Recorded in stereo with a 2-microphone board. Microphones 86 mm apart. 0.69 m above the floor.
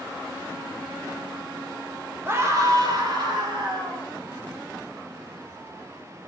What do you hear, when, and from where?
2.2 s a scream: 25° right (ahead or behind), 1.1 m; by 4.1 s 65° right (ahead or behind), 2.5 m